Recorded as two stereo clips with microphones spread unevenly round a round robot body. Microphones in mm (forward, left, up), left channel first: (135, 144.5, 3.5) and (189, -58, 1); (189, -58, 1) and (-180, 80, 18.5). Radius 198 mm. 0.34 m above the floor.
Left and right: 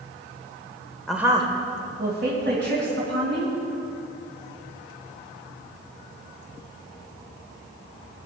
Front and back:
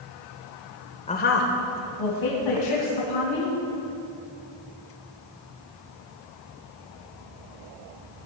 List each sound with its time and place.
1.1 s a woman speaking: 25° left, 0.9 m; by 3.5 s 50° right, 4 m